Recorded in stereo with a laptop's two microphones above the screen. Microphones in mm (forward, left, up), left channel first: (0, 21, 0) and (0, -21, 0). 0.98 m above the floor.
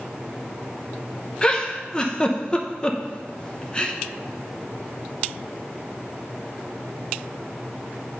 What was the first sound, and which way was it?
A giggle, 20° left (ahead or behind).